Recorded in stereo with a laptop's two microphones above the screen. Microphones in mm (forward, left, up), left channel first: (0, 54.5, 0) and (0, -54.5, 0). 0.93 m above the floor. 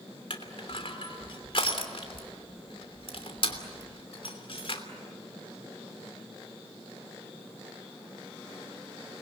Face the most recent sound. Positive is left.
turn(degrees=55)  # may be behind; listen again after turning